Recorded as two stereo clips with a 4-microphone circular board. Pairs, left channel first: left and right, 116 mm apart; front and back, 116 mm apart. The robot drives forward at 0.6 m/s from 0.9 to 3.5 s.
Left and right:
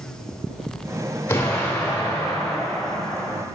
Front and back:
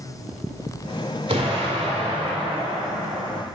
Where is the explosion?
160° left, 1.9 m; by 3.4 s 165° left, 3 m.